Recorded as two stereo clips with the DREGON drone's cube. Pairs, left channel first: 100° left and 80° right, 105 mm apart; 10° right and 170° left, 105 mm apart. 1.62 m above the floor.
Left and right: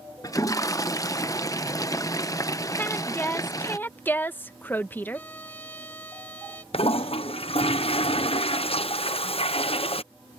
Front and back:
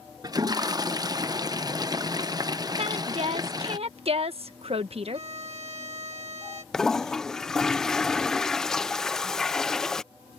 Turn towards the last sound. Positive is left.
turn(degrees=75)